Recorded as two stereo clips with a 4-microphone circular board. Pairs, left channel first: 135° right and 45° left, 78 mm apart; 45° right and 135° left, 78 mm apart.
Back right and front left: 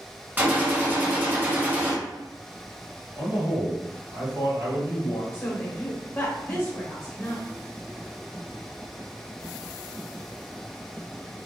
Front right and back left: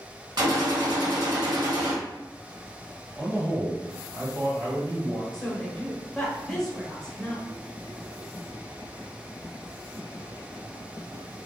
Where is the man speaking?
90° left, 1.9 m.